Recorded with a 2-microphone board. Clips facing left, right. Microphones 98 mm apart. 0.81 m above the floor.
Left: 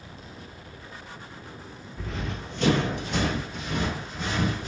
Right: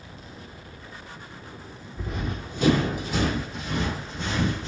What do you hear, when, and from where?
2.0 s running footsteps: 20° right (ahead or behind), 1.0 m; by 4.7 s 5° left (ahead or behind), 3 m